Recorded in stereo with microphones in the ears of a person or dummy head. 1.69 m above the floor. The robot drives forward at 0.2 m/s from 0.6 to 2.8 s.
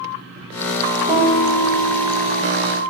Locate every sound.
1.1 s a piano: 10° right (ahead or behind), 1.3 m